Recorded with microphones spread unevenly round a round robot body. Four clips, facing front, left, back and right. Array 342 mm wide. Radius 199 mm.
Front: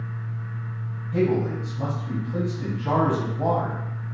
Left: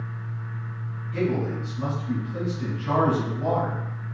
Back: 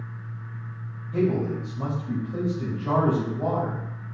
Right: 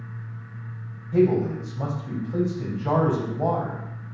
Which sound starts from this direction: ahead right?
A man speaking, at 1.1 s.